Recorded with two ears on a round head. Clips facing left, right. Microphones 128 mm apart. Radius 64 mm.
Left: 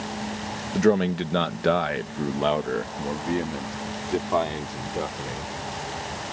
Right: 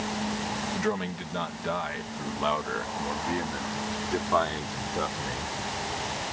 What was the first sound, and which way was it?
A man speaking, 55° left (ahead or behind).